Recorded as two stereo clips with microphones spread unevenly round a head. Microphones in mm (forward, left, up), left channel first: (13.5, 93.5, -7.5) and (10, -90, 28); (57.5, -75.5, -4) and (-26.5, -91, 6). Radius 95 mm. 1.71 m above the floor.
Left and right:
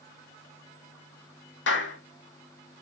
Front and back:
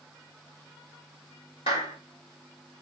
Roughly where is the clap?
Ahead left.